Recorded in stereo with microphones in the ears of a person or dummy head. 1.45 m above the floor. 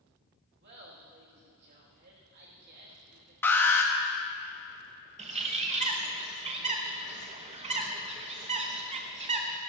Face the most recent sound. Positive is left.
turn(degrees=-30)  # may be behind; listen again after turning